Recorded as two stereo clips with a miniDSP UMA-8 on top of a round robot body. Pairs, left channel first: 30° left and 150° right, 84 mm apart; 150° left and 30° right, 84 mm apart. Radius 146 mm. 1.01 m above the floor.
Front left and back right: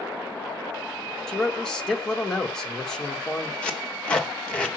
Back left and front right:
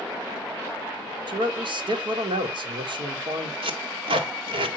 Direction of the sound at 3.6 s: 50° right.